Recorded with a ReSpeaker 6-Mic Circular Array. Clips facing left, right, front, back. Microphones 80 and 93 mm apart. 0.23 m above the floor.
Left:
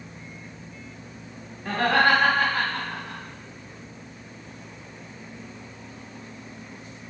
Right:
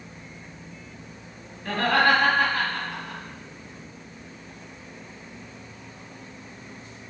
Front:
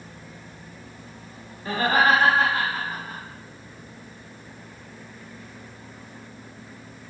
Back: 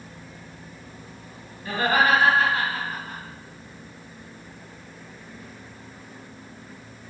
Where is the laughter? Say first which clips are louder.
Left 1 dB, front 1 dB; 25° left, 1.2 m; by 3.2 s 85° left, 1.3 m.